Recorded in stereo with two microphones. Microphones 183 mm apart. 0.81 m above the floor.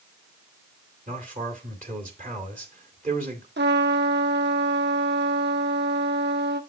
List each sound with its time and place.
1.1 s a man speaking: 50° right (ahead or behind), 2 m
3.6 s a trumpet: 70° right (ahead or behind), 0.8 m